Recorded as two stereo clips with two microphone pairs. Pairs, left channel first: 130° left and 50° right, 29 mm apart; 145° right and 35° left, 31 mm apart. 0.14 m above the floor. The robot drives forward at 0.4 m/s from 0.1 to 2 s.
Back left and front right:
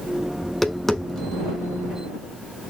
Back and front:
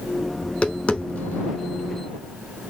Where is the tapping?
150° right, 0.6 m; by 1.6 s 170° right, 0.9 m.